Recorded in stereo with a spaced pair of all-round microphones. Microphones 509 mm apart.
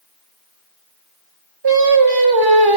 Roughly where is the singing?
Right.